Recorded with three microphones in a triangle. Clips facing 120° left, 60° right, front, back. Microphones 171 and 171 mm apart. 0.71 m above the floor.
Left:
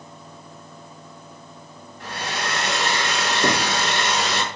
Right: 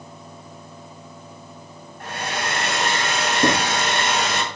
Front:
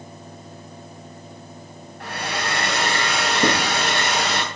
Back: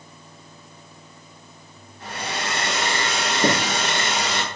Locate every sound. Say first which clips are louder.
2.0 s a hair dryer: right 1 dB, front 2 dB; 20° right, 3 m
3.4 s writing: right 3 dB, even; 25° right, 4 m